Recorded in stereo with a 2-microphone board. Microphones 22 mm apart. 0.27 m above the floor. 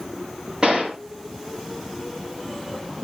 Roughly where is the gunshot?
Right.